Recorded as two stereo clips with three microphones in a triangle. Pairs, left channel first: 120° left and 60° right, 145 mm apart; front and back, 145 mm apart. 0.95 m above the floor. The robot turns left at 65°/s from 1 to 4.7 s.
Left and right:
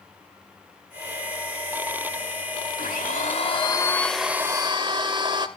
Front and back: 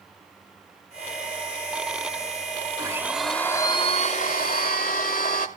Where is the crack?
I don't hear a crack.